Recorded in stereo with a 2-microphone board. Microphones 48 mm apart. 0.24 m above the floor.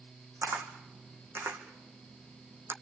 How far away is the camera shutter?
About 2 m.